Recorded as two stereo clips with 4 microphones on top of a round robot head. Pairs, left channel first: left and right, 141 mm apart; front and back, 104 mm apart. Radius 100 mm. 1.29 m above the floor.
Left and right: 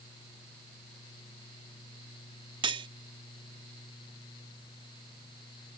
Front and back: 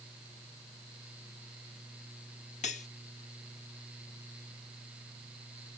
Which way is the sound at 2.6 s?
40° right.